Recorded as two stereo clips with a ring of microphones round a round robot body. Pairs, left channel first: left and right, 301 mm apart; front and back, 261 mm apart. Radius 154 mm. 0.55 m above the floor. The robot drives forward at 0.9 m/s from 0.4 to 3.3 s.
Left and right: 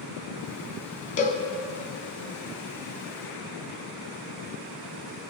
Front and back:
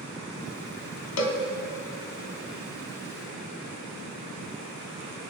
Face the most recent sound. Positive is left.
turn(degrees=150)